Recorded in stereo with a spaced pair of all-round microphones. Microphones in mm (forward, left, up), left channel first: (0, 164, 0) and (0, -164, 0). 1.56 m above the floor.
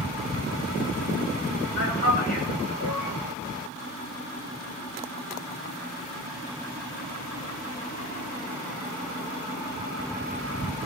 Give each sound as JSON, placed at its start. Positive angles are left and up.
{"t": 1.8, "sound": "a man speaking", "side_deg": 60, "distance_m": 7.5}